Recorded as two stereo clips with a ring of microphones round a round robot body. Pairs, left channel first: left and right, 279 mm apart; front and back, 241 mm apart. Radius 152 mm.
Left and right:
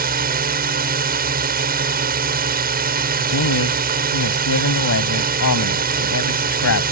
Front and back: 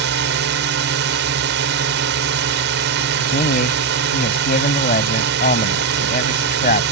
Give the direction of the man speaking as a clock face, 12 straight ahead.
10 o'clock.